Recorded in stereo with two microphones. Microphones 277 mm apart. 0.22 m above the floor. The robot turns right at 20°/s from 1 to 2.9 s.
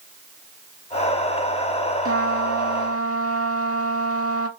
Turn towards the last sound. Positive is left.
turn(degrees=-60)  # may be behind; listen again after turning